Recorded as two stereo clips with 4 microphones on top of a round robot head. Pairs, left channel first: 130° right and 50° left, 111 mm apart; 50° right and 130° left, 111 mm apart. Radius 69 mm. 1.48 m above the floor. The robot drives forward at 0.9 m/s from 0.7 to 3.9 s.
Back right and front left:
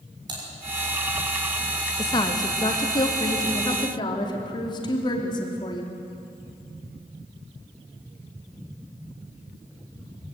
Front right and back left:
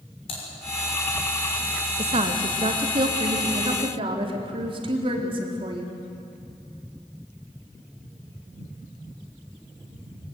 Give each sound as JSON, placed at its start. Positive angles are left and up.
{"t": 0.3, "sound": "typing on a keyboard", "azimuth_deg": -5, "distance_m": 6.0}
{"t": 2.0, "sound": "a woman speaking", "azimuth_deg": 175, "distance_m": 1.5}